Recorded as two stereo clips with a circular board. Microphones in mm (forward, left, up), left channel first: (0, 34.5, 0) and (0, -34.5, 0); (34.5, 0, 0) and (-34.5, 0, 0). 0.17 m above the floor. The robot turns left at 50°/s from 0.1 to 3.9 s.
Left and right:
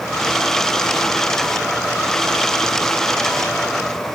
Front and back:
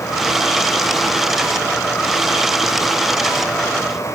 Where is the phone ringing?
I don't hear a phone ringing.